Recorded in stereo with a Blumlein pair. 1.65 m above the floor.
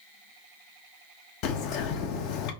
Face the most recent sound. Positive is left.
turn(degrees=40)